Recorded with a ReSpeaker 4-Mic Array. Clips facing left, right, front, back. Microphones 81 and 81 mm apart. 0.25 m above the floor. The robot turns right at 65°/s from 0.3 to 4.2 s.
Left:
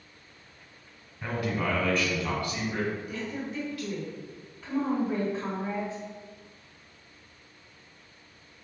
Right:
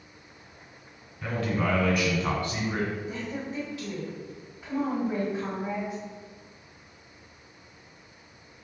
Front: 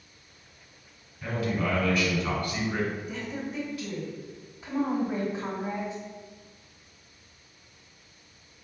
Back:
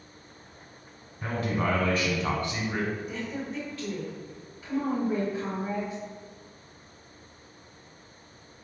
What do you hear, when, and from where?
1.2 s a man speaking: 150° left, 1.3 m; by 2.9 s 100° right, 1.3 m
3.1 s a woman speaking: 100° right, 1.4 m; by 6.0 s 25° right, 1.4 m